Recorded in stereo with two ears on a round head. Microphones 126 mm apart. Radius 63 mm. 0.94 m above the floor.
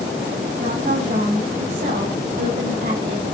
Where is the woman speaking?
55° right (ahead or behind), 6 m; by 3.2 s 65° right (ahead or behind), 4 m.